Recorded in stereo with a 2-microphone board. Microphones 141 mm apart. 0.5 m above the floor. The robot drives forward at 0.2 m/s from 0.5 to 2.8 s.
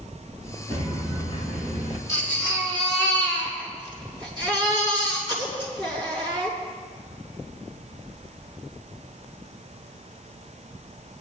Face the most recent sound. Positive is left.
turn(degrees=-35)  # may be behind; listen again after turning